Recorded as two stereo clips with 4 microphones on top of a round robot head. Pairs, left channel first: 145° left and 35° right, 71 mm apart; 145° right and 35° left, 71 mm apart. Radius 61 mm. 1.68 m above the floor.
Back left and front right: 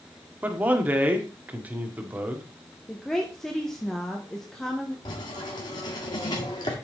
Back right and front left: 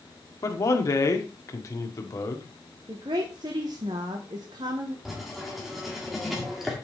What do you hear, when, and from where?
0.4 s a man speaking: 100° right, 1.5 m
2.9 s a woman speaking: 65° left, 1.1 m
5.0 s writing: 120° left, 1.8 m